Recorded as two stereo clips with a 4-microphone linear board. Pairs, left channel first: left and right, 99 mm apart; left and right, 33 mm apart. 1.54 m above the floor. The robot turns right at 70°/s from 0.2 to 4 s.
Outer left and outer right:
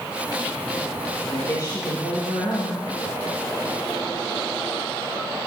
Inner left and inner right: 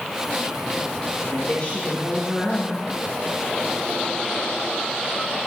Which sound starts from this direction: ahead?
A woman speaking, at 1.2 s.